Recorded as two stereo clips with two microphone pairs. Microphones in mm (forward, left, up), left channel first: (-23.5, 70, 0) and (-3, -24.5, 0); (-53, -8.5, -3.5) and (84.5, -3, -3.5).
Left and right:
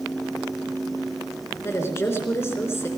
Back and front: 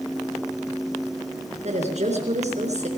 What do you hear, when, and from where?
1.6 s a woman speaking: 40° left, 4 m